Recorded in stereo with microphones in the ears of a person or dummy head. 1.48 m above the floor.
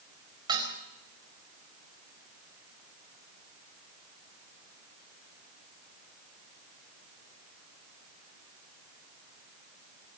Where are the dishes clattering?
20° right (ahead or behind), 4.5 m.